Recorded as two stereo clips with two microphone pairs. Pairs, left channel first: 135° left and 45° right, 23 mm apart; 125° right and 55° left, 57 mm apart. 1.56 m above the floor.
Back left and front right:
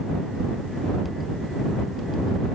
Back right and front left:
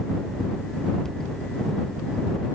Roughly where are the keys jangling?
I don't hear keys jangling.